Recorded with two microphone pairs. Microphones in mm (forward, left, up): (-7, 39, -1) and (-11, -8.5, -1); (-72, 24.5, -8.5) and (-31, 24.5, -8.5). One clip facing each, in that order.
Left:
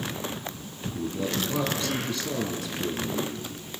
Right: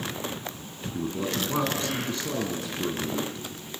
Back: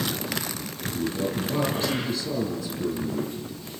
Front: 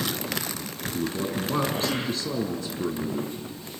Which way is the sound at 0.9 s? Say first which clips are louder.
Even, back 1 dB; 40° right.